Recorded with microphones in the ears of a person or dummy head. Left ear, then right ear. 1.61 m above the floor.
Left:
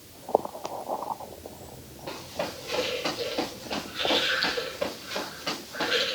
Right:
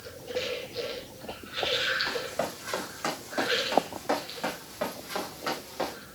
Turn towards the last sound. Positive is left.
turn(degrees=-30)  # may be behind; listen again after turning